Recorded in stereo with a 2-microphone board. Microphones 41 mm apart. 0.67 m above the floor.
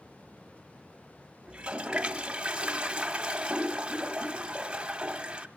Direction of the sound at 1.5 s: 30° right (ahead or behind).